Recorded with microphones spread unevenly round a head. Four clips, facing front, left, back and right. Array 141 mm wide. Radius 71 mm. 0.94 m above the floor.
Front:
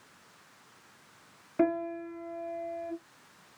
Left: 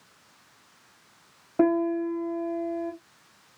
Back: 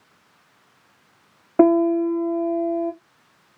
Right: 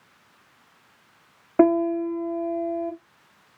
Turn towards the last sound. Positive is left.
turn(degrees=-160)